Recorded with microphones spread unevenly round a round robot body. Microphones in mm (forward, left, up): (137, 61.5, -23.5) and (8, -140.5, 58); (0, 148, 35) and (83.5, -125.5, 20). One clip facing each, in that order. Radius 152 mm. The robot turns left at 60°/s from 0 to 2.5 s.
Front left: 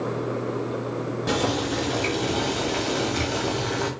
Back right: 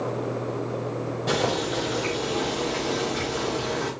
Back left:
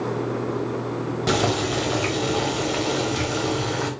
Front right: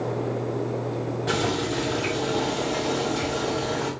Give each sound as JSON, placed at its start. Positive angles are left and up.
{"t": 1.3, "sound": "boiling", "azimuth_deg": 130, "distance_m": 1.1}